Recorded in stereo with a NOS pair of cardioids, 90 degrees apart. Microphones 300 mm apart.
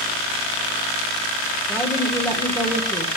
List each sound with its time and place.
1.7 s a woman speaking: 5° left, 1.6 m